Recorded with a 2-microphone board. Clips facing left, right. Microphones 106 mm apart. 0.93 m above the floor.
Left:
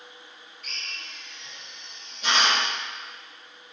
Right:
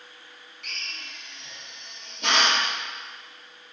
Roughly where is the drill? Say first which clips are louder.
Right 1 dB; right.